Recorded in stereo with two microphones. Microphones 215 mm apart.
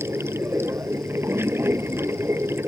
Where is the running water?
10° right (ahead or behind).